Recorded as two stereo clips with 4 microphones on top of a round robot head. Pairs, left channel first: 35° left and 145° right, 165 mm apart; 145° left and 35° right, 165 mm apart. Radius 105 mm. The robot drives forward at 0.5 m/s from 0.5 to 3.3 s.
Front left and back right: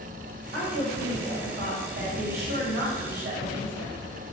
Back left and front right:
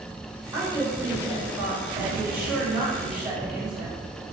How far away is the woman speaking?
About 4.5 m.